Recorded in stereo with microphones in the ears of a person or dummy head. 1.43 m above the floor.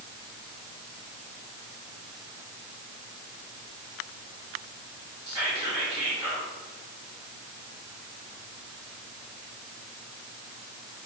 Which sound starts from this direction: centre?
Whispering, at 5.2 s.